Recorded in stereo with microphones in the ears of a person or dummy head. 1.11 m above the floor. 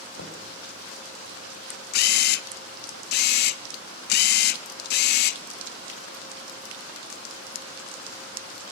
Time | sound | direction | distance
0.2 | knocking | 80° left | 3.5 m
1.9 | a camera shutter | 60° left (ahead or behind) | 0.8 m